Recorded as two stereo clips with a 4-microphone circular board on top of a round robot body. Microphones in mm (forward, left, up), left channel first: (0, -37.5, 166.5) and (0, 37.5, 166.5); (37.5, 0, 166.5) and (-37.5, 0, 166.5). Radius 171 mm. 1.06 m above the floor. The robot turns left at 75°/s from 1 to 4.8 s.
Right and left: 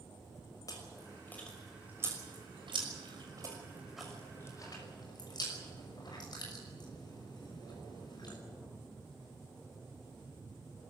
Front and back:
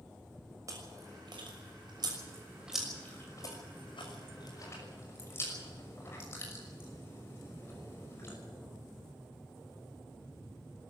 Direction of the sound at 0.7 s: 135° right.